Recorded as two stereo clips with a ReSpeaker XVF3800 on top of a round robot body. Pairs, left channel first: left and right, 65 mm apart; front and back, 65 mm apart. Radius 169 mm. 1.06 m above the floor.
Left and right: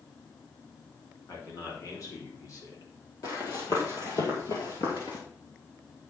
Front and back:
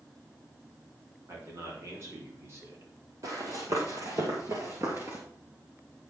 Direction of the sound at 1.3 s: 130° left.